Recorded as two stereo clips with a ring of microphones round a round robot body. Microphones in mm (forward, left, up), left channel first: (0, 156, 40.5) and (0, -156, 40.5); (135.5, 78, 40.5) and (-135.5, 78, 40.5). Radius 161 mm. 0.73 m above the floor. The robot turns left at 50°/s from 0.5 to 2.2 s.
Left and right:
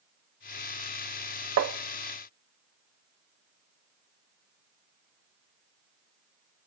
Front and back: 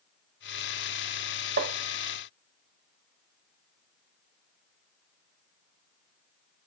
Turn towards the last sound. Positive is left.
turn(degrees=-160)